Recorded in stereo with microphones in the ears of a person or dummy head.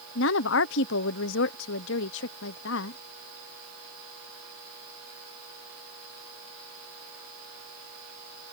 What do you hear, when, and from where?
0.1 s a woman speaking: 70° left (ahead or behind)